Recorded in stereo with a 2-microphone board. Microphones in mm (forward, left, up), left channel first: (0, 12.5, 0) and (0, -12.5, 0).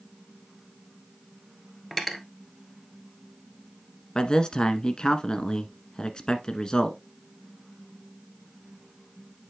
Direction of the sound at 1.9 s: 5° left (ahead or behind).